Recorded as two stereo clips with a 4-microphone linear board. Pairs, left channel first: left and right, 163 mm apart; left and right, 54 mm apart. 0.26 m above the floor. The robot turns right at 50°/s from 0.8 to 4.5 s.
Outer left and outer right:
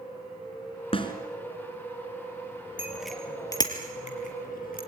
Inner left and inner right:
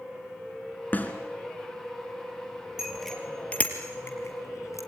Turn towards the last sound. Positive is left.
turn(degrees=70)  # may be behind; listen again after turning